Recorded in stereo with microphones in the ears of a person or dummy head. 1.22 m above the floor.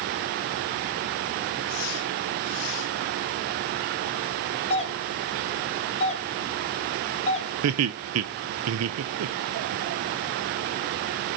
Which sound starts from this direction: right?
Laughter, at 7.6 s.